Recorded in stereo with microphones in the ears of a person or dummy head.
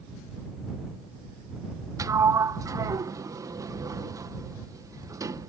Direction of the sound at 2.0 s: 15° right (ahead or behind).